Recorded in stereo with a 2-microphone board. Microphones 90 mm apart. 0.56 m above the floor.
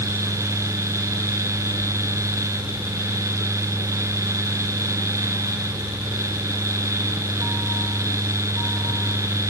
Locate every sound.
Only background noise.